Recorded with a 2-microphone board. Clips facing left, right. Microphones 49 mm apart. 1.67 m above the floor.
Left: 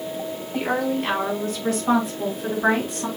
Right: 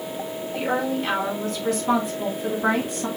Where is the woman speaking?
65° left (ahead or behind), 3.5 m; by 3.1 s 50° left (ahead or behind), 5 m.